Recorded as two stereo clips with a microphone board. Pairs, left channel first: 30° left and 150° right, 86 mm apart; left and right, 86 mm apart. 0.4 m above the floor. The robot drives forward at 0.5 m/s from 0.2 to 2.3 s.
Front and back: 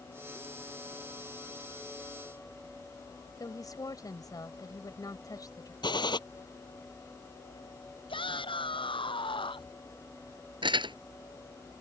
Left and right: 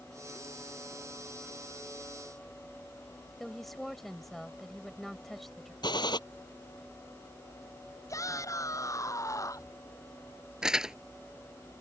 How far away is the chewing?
No chewing in this recording.